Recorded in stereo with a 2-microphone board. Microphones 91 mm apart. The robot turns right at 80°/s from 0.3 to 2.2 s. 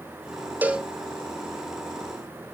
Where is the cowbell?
20° right (ahead or behind), 0.5 m; by 0.9 s centre (ahead or behind), 0.5 m.